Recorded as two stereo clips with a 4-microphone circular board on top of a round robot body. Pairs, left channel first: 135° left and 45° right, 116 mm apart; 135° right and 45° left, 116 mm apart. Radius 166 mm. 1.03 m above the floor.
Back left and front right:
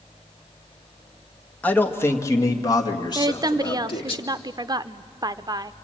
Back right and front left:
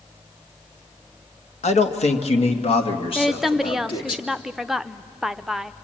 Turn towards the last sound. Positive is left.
turn(degrees=-40)